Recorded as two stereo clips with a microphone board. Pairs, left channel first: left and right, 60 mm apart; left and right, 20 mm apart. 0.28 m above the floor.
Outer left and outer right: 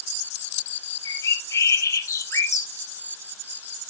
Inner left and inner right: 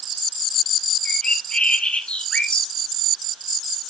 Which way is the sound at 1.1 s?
60° left (ahead or behind).